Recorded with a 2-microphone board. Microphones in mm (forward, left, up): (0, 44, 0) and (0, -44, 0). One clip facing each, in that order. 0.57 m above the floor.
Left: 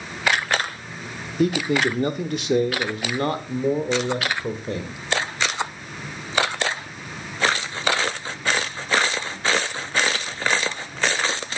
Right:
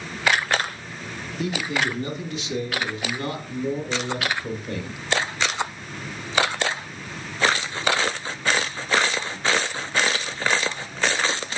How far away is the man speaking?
About 1.2 m.